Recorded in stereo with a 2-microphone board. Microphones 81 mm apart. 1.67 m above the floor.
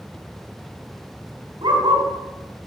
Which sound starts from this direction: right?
A dog barking, at 1.6 s.